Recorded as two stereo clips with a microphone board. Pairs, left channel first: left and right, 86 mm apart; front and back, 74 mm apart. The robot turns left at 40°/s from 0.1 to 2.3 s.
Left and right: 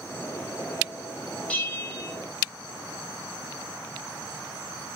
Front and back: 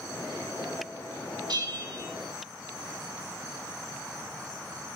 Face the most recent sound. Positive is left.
turn(degrees=135)